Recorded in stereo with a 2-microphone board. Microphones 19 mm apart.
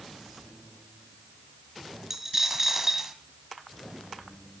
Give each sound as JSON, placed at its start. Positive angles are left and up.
{"t": 2.1, "sound": "a dropped coin", "side_deg": -20, "distance_m": 1.8}